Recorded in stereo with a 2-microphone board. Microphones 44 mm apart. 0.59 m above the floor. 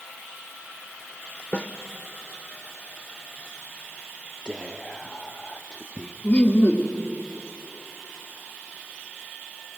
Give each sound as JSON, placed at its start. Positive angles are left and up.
{"t": 1.5, "sound": "a snare drum", "side_deg": 25, "distance_m": 0.7}
{"t": 4.5, "sound": "whispering", "side_deg": 20, "distance_m": 0.7}
{"t": 6.2, "sound": "laughter", "side_deg": 25, "distance_m": 1.4}